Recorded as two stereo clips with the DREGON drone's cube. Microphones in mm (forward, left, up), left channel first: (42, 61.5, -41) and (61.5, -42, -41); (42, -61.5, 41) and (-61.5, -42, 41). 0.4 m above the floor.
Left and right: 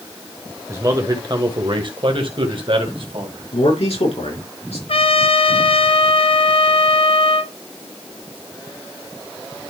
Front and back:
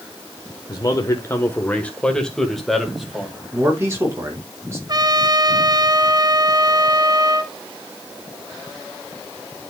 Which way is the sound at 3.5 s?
105° left.